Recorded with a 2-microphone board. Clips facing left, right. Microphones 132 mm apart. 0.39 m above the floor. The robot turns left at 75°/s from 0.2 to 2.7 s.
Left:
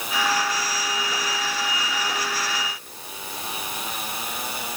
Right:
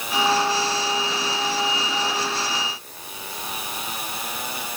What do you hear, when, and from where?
Only background noise.